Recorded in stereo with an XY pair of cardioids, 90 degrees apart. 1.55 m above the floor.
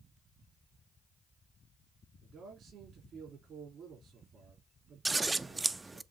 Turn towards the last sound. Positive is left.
turn(degrees=-20)